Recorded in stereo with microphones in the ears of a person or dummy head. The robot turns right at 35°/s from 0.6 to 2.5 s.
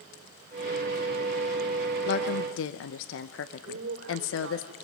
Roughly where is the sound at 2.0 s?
Left.